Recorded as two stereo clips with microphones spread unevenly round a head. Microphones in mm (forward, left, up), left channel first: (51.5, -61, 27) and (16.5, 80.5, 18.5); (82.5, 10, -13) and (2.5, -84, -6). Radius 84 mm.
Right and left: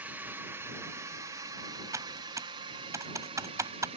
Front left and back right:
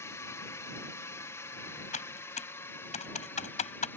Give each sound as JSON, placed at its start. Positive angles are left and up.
{"t": 0.0, "sound": "a drone", "azimuth_deg": 55}
{"t": 1.9, "sound": "typing on a keyboard", "azimuth_deg": 35}